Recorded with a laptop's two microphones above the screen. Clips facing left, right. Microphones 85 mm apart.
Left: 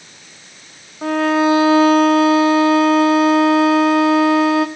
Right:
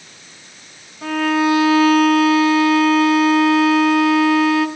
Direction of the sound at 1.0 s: 35° left (ahead or behind).